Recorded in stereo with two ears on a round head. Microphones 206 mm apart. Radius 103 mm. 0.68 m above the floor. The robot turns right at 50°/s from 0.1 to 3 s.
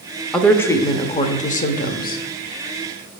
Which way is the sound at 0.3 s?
Straight ahead.